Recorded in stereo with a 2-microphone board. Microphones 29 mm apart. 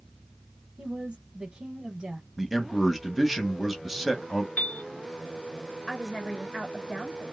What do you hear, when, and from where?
0.8 s a woman speaking: 30° right (ahead or behind), 1.3 m
2.4 s a man speaking: 5° right (ahead or behind), 1.0 m
4.6 s a piano: 45° left (ahead or behind), 0.6 m
5.9 s a woman speaking: 15° left (ahead or behind), 1.2 m